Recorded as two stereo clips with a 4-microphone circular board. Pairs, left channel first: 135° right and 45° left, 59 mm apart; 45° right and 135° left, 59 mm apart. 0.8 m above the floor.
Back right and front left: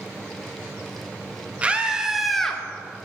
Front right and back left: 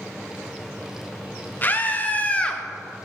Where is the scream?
10° right, 1.0 m; by 2.6 s 80° right, 0.8 m.